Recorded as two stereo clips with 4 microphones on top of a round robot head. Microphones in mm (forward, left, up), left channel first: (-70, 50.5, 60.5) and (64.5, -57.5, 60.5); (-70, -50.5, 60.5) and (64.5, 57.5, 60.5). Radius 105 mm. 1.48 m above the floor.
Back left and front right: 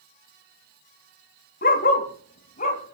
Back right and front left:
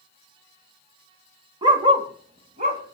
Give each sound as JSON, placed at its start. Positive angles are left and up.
{"t": 1.6, "sound": "a dog barking", "azimuth_deg": 105, "distance_m": 1.9}